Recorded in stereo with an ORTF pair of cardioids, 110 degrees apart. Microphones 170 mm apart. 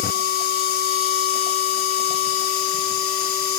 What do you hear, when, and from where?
0.0 s a machine running: 65° left, 2.5 m